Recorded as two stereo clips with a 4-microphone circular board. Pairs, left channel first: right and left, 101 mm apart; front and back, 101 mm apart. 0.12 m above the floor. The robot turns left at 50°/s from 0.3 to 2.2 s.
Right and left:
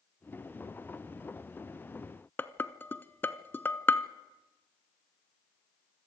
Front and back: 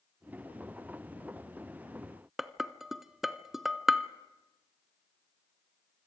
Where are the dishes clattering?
100° right, 0.7 m.